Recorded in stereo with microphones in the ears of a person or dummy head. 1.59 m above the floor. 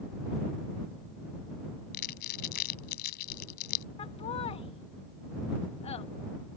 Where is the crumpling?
60° left (ahead or behind).